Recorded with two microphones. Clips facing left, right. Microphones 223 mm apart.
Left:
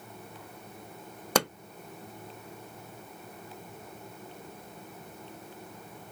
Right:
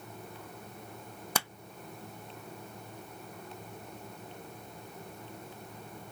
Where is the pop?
70° left (ahead or behind).